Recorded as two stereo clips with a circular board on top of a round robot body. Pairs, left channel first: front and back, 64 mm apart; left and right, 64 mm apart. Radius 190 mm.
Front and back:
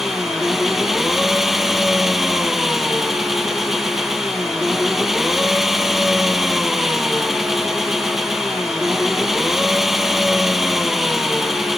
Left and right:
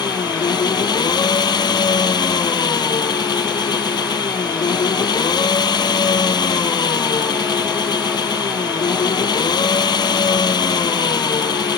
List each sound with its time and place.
0.0 s an engine running: 95° left